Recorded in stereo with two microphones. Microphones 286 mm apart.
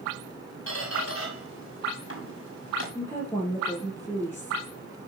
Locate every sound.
0.7 s a squeak: 55° left (ahead or behind), 5.5 m
3.0 s a woman speaking: 10° left (ahead or behind), 4 m